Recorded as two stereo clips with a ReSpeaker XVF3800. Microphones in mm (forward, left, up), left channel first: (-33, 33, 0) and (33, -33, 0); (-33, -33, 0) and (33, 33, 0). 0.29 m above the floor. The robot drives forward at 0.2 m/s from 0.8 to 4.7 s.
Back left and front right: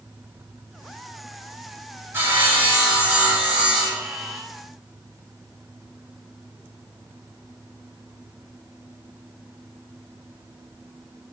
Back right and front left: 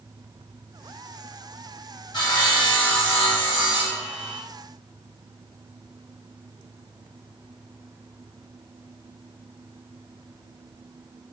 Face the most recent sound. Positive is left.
turn(degrees=-135)